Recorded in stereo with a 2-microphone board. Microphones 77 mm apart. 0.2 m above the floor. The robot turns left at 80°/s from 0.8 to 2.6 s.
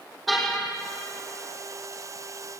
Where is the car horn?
Centre (ahead or behind), 4 m.